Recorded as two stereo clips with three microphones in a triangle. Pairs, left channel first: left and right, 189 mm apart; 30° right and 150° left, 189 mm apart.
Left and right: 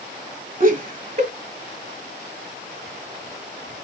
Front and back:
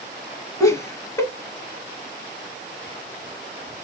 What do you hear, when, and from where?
0.6 s laughter: 100° right, 1.5 m